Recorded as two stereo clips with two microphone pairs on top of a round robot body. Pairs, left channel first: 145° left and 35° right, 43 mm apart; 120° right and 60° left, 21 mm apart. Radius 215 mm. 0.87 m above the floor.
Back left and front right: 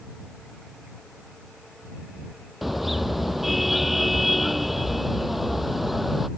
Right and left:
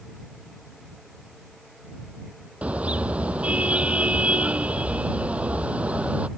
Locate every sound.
2.6 s a car horn: 55° left